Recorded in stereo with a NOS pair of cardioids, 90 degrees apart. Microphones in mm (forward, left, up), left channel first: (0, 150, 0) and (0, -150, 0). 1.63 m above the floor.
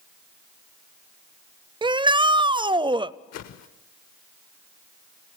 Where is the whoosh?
60° left, 1.2 m.